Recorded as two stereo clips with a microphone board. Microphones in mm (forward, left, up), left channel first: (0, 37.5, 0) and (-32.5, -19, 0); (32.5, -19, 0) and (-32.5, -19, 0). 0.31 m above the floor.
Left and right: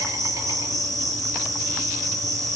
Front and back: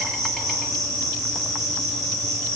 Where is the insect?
95° right, 9 m.